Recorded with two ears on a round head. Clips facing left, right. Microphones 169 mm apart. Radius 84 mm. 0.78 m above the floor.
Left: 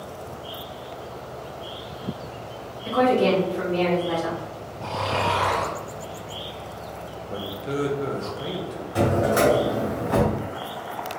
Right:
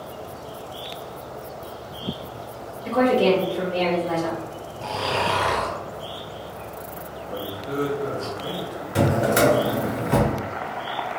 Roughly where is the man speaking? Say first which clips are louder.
Even; left.